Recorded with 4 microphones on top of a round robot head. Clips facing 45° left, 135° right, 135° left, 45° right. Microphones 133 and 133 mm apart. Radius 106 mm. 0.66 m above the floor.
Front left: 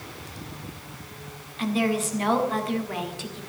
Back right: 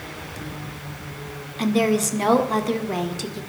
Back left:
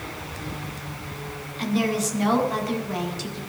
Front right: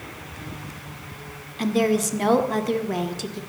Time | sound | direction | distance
1.6 | a woman speaking | 85° right | 2.0 m